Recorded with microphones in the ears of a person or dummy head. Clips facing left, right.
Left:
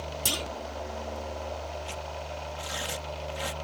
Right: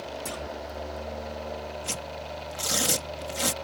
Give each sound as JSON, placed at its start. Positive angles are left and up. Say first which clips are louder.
{"t": 0.2, "sound": "a clunk", "louder": "even", "side_deg": 45}
{"t": 1.8, "sound": "tearing paper", "louder": "right 1 dB", "side_deg": -45}